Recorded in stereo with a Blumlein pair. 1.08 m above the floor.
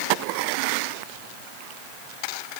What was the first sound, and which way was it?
Only background noise.